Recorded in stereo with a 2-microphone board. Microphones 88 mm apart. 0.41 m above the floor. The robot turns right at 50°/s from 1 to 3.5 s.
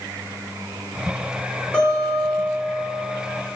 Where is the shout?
I don't hear a shout.